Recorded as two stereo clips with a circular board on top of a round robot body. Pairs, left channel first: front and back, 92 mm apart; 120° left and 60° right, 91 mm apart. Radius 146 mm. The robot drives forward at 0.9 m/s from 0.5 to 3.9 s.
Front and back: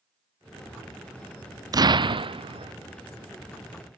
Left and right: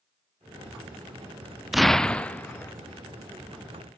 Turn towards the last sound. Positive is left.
turn(degrees=-175)